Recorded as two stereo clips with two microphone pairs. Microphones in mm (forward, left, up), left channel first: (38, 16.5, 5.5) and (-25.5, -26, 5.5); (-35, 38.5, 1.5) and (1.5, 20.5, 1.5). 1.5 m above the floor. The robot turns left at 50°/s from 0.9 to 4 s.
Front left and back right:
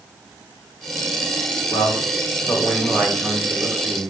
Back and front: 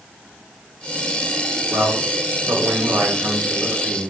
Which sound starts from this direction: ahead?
A man speaking, at 1.7 s.